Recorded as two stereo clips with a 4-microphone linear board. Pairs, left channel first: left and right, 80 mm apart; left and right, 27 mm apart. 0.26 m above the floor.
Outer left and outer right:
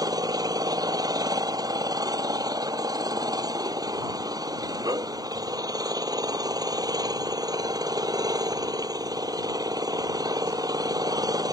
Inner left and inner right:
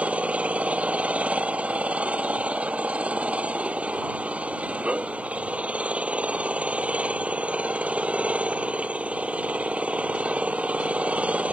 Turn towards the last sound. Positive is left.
turn(degrees=-55)  # may be behind; listen again after turning